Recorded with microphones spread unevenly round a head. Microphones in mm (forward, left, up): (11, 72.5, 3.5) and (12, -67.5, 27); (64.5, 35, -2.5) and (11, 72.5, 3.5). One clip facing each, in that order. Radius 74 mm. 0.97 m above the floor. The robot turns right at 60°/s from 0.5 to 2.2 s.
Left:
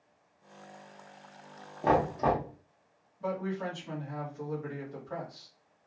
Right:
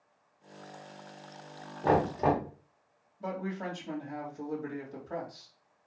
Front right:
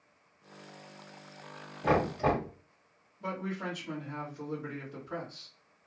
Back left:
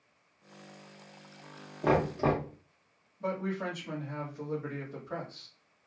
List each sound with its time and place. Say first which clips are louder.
1.8 s knocking: even, even; 160° left, 1.3 m; by 2.5 s 175° right, 1.3 m
3.2 s a man speaking: left 2 dB, back left 3 dB; 165° right, 1.5 m